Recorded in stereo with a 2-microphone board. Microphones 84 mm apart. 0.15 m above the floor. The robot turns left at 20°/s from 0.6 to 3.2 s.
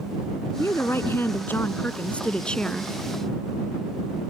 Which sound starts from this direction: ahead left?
A woman speaking, at 0.6 s.